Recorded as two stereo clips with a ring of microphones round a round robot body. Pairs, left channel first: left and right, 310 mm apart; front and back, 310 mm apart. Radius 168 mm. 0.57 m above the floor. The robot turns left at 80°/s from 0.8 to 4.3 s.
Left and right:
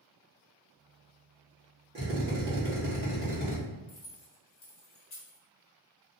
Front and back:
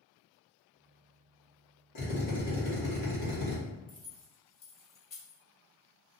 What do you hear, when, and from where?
1.9 s a drill: 35° right, 1.3 m; by 3.6 s 165° right, 1.3 m
3.9 s keys jangling: 90° left, 1.2 m; by 5.4 s 60° left, 1.2 m